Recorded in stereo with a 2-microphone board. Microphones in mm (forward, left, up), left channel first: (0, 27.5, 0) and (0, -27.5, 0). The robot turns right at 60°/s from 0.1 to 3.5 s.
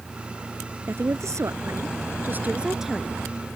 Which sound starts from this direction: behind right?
A woman speaking, at 0.9 s.